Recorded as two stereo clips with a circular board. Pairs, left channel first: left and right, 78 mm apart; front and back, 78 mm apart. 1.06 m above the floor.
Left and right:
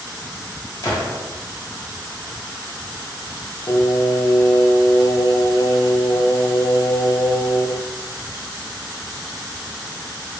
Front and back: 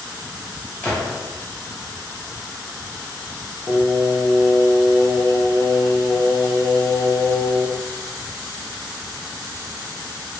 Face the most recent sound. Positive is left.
turn(degrees=55)